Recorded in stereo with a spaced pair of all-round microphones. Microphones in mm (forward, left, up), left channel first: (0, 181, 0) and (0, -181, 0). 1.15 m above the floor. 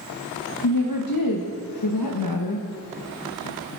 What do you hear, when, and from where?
0.6 s a woman speaking: 65° left (ahead or behind), 0.9 m